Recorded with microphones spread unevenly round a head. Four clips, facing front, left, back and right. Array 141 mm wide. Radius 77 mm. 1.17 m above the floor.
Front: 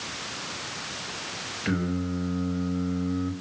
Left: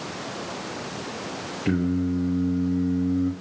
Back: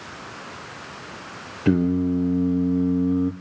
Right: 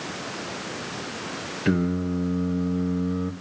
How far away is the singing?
About 3 m.